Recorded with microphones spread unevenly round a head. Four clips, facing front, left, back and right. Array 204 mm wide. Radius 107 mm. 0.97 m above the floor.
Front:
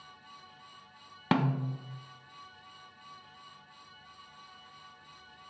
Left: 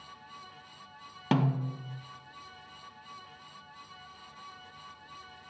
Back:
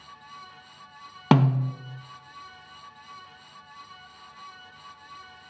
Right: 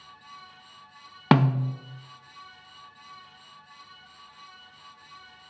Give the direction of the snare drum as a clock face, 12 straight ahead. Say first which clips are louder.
Right 7 dB, back 7 dB; 5 o'clock.